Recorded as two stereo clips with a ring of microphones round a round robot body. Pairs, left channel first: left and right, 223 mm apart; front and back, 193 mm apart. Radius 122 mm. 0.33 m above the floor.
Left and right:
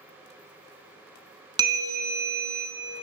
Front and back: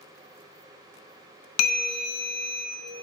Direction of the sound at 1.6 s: 15° right.